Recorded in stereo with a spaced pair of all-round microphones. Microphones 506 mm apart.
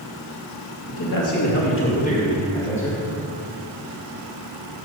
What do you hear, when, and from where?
0.9 s a man speaking: 45° left (ahead or behind), 2 m; by 3.0 s centre (ahead or behind), 3 m